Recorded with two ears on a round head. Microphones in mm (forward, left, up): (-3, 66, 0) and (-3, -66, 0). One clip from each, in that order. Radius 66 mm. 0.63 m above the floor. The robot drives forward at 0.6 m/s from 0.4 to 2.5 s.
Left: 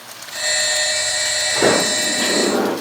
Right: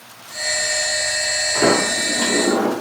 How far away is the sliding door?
About 1.5 m.